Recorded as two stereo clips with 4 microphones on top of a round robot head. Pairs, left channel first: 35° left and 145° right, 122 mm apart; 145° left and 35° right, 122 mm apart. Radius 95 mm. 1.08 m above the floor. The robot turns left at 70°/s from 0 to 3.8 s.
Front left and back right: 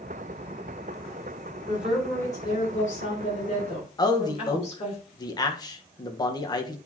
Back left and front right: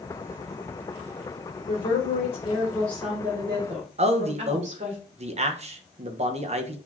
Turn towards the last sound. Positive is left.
turn(degrees=-15)